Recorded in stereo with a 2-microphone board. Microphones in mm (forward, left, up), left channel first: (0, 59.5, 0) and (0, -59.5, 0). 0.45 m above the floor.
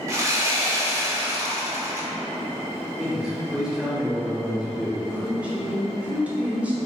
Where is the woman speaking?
10° right (ahead or behind), 0.9 m.